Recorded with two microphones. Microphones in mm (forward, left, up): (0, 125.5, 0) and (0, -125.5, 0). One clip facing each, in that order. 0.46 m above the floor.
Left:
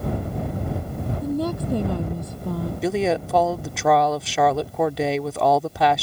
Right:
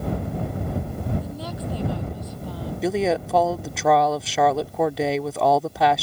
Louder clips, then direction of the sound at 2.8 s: Even; centre (ahead or behind).